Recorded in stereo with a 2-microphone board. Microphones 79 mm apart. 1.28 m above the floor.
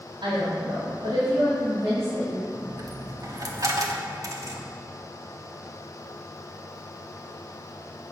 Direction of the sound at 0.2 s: 85° right.